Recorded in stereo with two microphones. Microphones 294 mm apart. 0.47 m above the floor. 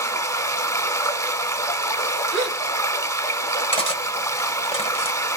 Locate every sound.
0.0 s running water: 10° left (ahead or behind), 0.7 m
2.3 s a gasp: 55° right (ahead or behind), 2.5 m
3.7 s cutlery clinking: 20° left (ahead or behind), 0.9 m